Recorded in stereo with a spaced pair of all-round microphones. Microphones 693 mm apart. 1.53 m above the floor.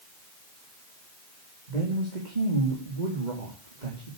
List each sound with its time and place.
1.7 s a woman speaking: 85° right, 3 m